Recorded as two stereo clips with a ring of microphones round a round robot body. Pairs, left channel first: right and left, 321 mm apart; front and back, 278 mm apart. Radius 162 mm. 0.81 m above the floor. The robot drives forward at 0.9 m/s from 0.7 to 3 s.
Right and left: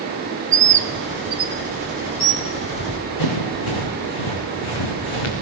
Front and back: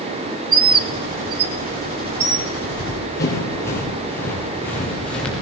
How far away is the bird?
About 0.9 m.